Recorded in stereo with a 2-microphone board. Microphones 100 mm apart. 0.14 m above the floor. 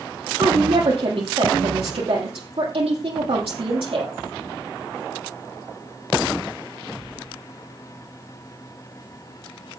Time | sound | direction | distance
0.4 | a woman speaking | 65° right (ahead or behind) | 4.5 m